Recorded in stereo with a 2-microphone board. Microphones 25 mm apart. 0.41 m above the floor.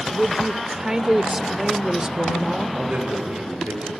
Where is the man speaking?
70° right (ahead or behind), 7.5 m.